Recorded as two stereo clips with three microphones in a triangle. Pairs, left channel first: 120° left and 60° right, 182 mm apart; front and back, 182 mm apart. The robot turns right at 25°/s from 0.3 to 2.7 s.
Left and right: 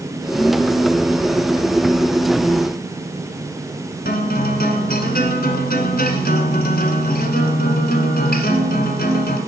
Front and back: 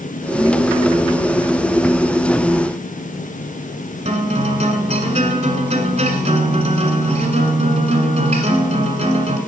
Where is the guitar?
135° left, 1.4 m.